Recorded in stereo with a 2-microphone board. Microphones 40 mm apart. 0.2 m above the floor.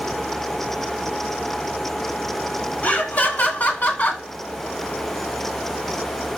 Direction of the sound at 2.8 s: 40° left (ahead or behind).